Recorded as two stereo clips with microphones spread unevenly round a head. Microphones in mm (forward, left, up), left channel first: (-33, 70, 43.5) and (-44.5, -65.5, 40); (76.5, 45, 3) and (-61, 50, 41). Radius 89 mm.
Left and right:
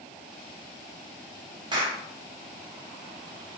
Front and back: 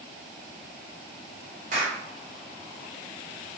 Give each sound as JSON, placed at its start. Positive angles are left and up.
{"t": 1.7, "sound": "a clap", "azimuth_deg": -150, "distance_m": 0.9}